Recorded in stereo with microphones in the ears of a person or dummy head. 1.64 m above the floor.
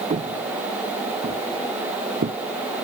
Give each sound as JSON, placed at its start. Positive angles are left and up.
{"t": 0.1, "sound": "footsteps", "side_deg": -35}